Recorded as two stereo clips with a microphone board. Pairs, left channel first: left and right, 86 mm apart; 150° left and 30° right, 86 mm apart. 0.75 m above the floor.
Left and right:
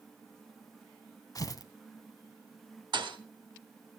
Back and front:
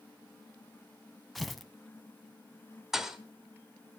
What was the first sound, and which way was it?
Tearing paper, 60° left.